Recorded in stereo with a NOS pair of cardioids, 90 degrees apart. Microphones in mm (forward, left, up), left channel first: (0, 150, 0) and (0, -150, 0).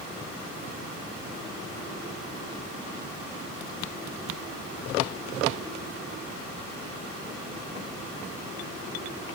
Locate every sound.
Only background noise.